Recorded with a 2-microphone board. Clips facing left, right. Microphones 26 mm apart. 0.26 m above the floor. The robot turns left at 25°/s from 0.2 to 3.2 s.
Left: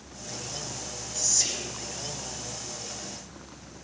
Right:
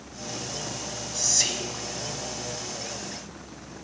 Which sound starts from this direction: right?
Whispering, at 1.1 s.